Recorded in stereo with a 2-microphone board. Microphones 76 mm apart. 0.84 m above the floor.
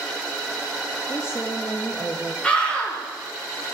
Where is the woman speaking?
40° left (ahead or behind), 1.3 m; by 2.3 s 10° left (ahead or behind), 0.8 m.